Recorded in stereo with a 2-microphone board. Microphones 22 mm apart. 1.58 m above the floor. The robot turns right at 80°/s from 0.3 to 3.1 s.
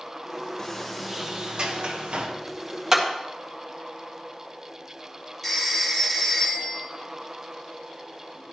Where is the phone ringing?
15° left (ahead or behind), 2.5 m.